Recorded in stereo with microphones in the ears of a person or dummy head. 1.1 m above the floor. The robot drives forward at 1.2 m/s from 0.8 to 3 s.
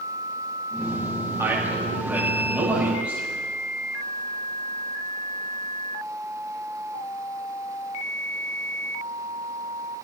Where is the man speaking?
10° right (ahead or behind), 4.5 m.